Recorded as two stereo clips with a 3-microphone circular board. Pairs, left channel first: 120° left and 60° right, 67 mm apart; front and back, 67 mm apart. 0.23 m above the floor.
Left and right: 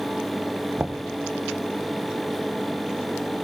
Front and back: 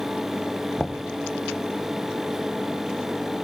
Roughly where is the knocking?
Right.